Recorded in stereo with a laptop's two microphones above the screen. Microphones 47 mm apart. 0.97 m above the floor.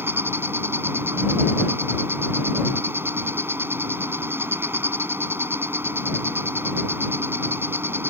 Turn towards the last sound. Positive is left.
turn(degrees=-55)  # may be behind; listen again after turning